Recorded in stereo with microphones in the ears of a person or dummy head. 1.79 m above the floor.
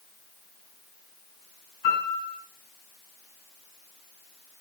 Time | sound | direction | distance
1.8 | a piano | 55° left (ahead or behind) | 3 m